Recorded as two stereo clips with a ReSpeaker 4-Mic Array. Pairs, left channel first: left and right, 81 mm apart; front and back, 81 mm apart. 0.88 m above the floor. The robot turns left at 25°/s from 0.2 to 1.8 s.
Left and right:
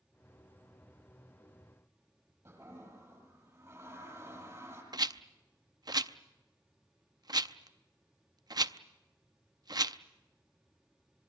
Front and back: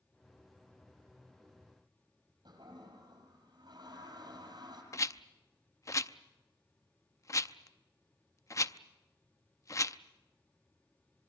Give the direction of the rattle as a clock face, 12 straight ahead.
2 o'clock.